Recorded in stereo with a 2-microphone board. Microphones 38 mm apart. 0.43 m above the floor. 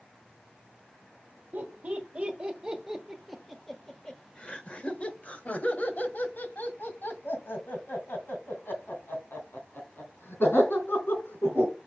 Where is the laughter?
45° right (ahead or behind), 1.4 m; by 11.7 s 75° left (ahead or behind), 4.5 m.